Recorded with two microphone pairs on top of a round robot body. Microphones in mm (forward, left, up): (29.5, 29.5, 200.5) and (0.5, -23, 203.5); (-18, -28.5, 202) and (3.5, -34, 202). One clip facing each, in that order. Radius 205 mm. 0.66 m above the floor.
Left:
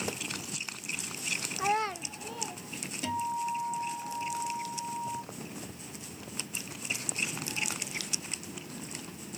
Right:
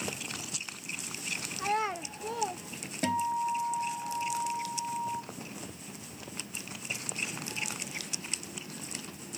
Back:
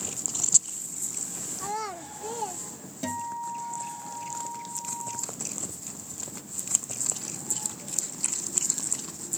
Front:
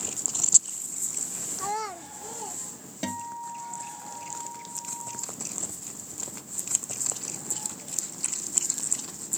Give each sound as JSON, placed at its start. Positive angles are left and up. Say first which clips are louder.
{"t": 1.6, "sound": "a child speaking", "louder": "left 1 dB, front 1 dB", "azimuth_deg": 30, "distance_m": 0.5}
{"t": 3.0, "sound": "a guitar", "louder": "right 3 dB, back 2 dB", "azimuth_deg": -80, "distance_m": 0.7}